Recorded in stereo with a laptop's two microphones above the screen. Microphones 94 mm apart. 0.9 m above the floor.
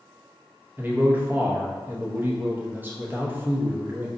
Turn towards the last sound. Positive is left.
turn(degrees=-20)  # may be behind; listen again after turning